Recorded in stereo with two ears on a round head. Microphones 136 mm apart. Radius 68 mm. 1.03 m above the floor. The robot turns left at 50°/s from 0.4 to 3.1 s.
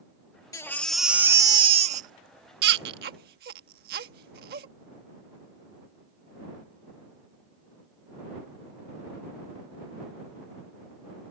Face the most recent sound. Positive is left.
turn(degrees=-70)  # may be behind; listen again after turning